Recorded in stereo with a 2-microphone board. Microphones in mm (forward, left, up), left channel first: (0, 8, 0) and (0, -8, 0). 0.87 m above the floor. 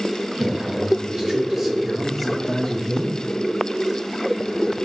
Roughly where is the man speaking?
Right.